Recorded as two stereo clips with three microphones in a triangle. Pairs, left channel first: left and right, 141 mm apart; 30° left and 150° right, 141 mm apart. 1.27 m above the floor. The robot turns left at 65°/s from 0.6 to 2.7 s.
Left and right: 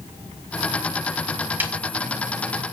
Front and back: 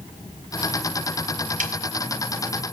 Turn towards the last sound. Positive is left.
turn(degrees=120)